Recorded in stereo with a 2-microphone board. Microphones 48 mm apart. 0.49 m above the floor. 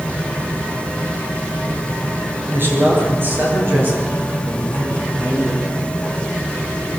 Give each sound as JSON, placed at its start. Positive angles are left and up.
{"t": 2.5, "sound": "a man speaking", "side_deg": -50, "distance_m": 9.0}